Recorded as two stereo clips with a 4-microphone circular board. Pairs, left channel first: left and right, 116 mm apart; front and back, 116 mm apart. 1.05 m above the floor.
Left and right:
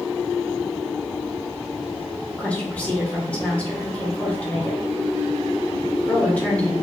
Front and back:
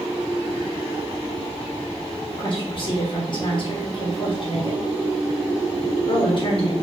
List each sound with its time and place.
2.3 s a woman speaking: 15° left, 0.9 m